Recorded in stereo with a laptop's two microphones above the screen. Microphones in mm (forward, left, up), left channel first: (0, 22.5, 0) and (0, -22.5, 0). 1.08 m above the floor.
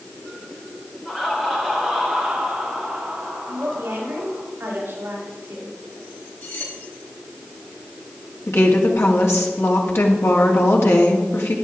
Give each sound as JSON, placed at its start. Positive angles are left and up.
{"t": 1.1, "sound": "laughter", "side_deg": 20, "distance_m": 4.0}
{"t": 3.5, "sound": "a woman speaking", "side_deg": -60, "distance_m": 5.5}
{"t": 6.4, "sound": "cutlery clinking", "side_deg": 75, "distance_m": 3.5}
{"t": 8.5, "sound": "a woman speaking", "side_deg": 80, "distance_m": 2.0}